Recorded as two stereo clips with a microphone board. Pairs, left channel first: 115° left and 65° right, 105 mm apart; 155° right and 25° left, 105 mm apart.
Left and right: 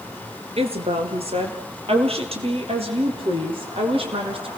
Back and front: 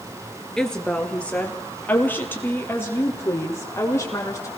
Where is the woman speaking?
75° right, 3 m; by 4.5 s 95° right, 6.5 m.